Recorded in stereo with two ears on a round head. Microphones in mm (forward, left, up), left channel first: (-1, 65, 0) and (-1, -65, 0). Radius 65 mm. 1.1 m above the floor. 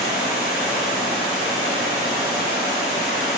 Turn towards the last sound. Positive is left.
turn(degrees=-5)  # may be behind; listen again after turning